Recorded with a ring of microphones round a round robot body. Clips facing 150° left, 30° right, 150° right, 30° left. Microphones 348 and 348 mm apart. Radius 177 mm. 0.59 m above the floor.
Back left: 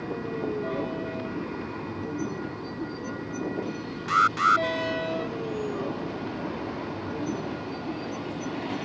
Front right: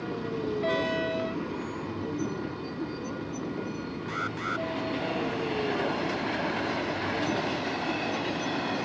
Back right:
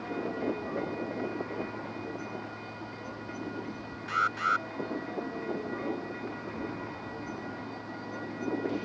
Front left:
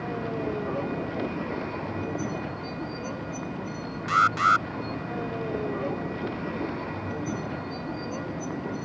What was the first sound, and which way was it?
A vehicle, 60° left.